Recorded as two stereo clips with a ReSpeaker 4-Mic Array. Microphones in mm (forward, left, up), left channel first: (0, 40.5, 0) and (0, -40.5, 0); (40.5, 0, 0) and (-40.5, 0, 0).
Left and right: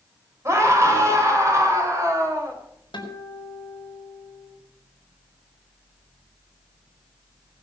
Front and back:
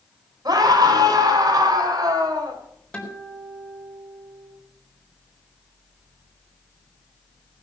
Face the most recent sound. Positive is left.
turn(degrees=75)